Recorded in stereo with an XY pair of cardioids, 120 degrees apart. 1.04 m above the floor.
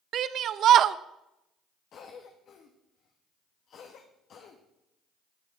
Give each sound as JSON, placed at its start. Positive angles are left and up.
{"t": 0.1, "sound": "a shout", "azimuth_deg": -60, "distance_m": 0.6}
{"t": 1.9, "sound": "a cough", "azimuth_deg": 55, "distance_m": 1.3}